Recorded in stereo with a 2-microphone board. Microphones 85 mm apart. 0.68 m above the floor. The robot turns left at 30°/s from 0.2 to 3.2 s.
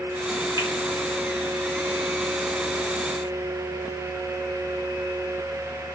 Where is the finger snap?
50° right (ahead or behind), 2.0 m; by 0.7 s 45° right (ahead or behind), 2.0 m.